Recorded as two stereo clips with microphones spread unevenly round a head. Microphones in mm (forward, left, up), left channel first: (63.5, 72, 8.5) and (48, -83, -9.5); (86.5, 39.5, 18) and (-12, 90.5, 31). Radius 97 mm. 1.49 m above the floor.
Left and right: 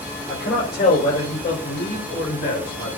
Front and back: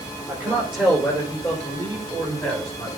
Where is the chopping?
I don't hear chopping.